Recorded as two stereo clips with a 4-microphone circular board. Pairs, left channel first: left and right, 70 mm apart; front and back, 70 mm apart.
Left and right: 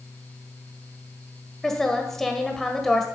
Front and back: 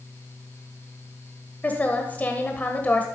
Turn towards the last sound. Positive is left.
turn(degrees=15)